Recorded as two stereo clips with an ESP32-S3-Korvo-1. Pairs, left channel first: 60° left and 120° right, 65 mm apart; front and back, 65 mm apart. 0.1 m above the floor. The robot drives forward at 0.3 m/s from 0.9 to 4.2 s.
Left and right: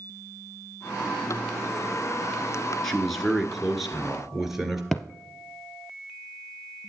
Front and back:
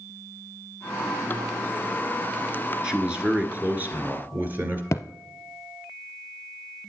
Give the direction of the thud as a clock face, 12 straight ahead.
1 o'clock.